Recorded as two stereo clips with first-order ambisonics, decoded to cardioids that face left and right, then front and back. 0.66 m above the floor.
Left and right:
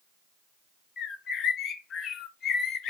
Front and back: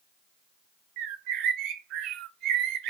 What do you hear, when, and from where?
1.0 s a bird: 150° left, 0.7 m